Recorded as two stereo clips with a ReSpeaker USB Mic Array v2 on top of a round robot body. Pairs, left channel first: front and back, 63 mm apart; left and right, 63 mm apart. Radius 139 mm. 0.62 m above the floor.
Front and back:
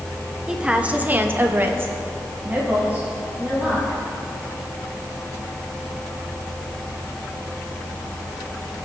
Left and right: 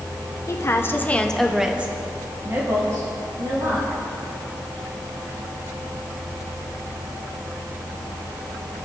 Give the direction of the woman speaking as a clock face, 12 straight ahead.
9 o'clock.